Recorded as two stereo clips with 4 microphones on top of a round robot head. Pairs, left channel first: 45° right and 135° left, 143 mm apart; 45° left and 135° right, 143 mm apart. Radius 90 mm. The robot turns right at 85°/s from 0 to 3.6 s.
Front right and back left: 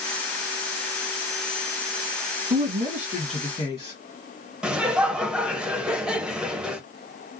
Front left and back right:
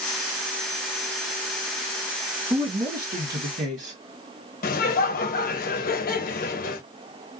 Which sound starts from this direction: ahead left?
Laughter, at 4.6 s.